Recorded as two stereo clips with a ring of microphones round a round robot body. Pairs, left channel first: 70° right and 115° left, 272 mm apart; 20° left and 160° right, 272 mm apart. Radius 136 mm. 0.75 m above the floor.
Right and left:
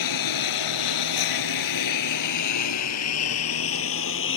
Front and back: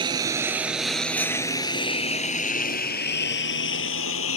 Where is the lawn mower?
85° right; by 4.4 s 20° right.